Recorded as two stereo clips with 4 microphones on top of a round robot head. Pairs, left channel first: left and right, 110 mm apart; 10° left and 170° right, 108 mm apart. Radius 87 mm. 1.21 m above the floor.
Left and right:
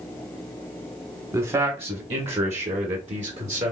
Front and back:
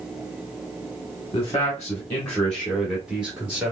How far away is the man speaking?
About 1.1 m.